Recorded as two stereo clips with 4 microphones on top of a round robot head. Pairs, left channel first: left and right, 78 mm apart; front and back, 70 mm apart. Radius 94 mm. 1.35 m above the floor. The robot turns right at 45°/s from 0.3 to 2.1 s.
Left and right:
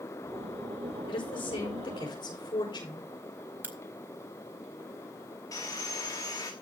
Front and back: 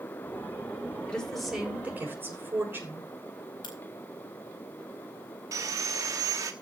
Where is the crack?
25° right, 3 m.